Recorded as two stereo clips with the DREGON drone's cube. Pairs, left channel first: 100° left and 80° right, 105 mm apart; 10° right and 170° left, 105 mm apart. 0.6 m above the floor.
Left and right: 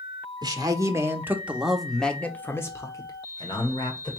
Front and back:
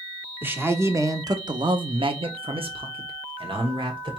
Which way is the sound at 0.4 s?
120° right.